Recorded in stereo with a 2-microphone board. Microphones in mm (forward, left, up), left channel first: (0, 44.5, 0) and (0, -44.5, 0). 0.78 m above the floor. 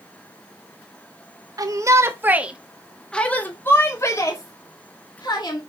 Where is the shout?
40° right (ahead or behind), 1.4 m; by 5.6 s 50° left (ahead or behind), 2.5 m.